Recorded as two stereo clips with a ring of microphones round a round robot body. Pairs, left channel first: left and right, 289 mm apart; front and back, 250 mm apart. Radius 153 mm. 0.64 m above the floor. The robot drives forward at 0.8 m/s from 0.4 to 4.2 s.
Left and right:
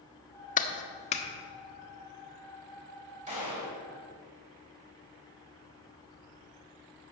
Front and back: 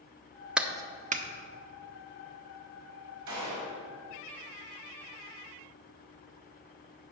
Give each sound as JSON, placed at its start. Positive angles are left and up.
{"t": 0.6, "sound": "a clap", "azimuth_deg": 95, "distance_m": 0.9}
{"t": 3.3, "sound": "a gunshot", "azimuth_deg": -155, "distance_m": 3.5}